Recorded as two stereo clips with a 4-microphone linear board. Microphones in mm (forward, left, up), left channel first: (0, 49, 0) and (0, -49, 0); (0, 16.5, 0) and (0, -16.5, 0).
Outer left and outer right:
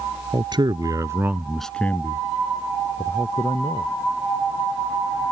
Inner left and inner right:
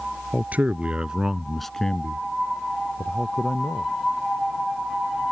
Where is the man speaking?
55° right (ahead or behind); by 3.9 s 50° left (ahead or behind).